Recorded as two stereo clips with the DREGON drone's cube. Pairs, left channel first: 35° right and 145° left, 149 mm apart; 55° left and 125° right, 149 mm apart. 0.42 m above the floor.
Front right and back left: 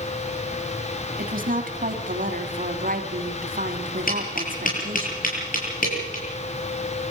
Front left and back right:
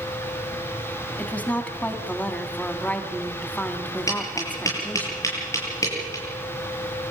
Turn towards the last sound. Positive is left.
turn(degrees=-15)